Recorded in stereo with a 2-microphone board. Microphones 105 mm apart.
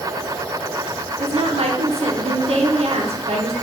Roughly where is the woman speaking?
Right.